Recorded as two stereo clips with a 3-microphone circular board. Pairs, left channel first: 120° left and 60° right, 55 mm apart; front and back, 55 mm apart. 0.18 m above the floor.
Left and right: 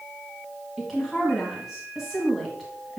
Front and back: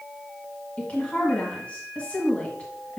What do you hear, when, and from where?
0.8 s a woman speaking: 20° left, 1.5 m